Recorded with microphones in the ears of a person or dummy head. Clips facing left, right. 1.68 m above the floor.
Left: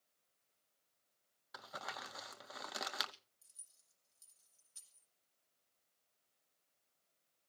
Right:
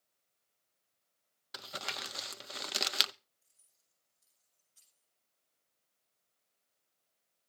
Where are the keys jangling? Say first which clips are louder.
Even; 85° left, 7.5 m.